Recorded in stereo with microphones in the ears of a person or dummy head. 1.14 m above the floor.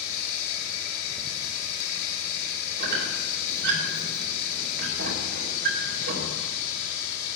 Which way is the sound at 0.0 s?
60° left (ahead or behind).